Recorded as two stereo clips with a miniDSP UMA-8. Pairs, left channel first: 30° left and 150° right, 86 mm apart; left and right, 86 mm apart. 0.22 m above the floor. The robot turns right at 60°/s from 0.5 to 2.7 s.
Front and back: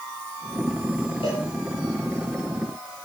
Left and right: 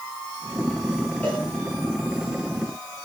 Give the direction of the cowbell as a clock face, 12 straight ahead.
11 o'clock.